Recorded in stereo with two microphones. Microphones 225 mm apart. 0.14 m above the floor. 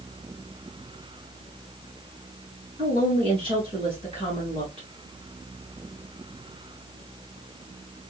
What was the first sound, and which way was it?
A woman speaking, 25° right (ahead or behind).